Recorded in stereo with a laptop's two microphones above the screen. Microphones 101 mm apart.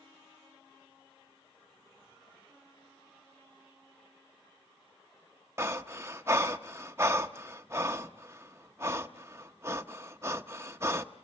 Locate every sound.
5.6 s breathing: 25° right (ahead or behind), 0.9 m